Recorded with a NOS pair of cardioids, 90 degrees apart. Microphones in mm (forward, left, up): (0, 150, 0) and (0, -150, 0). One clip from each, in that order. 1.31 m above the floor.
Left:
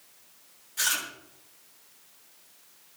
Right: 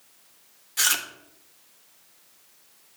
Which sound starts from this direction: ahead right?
Chewing, at 0.8 s.